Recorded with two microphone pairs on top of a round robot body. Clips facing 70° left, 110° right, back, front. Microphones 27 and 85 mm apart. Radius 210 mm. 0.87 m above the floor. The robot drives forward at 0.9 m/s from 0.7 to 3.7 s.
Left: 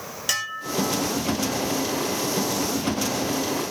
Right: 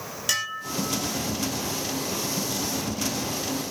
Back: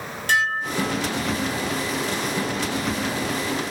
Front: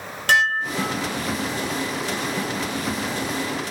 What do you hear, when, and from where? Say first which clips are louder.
0.3 s dishes clattering: left 1 dB, front 3 dB; 15° right, 3 m; by 1.1 s 20° right, 2.5 m